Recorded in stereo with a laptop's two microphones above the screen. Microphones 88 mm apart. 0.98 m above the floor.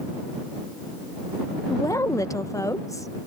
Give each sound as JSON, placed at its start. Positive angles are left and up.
{"t": 1.7, "sound": "a woman speaking", "side_deg": 35}